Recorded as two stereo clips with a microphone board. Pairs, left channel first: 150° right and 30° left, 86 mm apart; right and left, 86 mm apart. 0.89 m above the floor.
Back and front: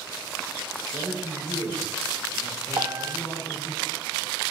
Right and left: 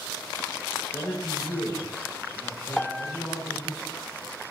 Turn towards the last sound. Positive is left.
turn(degrees=-10)